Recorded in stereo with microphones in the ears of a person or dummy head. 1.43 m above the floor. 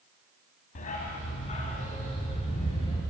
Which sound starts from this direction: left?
A dog barking, at 0.8 s.